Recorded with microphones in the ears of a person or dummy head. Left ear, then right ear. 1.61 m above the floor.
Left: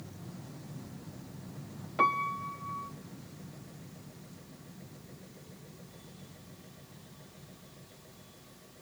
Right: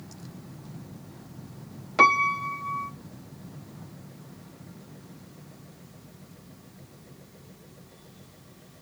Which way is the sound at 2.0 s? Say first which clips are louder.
Right 9 dB; 70° right (ahead or behind).